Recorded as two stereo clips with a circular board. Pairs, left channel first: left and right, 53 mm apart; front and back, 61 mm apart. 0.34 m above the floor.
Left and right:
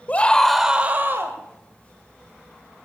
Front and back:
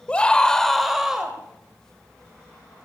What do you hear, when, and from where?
0.1 s a scream: 60° left, 1.3 m; by 1.4 s 105° right, 1.6 m